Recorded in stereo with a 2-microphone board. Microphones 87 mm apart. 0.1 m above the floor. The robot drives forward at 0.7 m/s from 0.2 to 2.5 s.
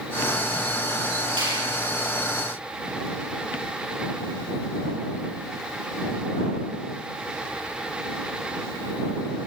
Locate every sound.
1.4 s a finger snap: 70° right (ahead or behind), 8 m